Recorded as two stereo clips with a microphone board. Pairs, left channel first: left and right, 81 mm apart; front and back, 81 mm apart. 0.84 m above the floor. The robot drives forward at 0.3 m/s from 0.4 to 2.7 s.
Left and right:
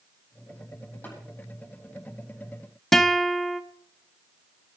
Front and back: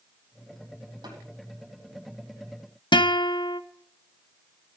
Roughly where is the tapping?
Behind.